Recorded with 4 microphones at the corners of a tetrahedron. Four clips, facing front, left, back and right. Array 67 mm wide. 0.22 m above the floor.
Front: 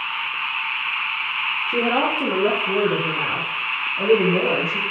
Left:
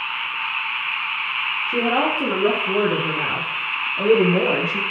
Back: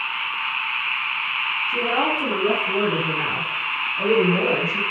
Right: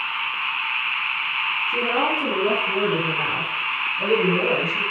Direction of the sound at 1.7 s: 35° left.